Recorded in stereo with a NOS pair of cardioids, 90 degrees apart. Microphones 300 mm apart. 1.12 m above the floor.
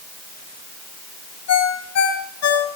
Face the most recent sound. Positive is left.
turn(degrees=65)